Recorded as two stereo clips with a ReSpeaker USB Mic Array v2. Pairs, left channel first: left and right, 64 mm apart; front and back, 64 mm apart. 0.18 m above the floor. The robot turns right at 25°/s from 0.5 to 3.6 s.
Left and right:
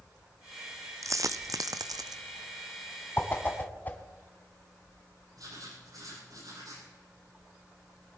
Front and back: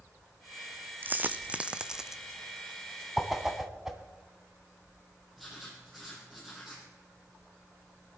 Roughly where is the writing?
Right.